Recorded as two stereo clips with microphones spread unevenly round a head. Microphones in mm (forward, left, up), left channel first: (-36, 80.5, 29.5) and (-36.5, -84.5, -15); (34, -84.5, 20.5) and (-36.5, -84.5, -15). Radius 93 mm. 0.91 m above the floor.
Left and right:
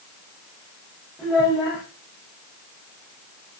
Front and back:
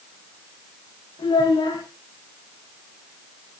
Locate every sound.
1.2 s a child speaking: straight ahead, 3.5 m